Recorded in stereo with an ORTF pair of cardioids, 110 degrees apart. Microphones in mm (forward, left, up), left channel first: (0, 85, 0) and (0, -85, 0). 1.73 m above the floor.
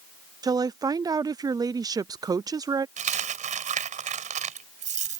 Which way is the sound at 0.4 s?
20° right.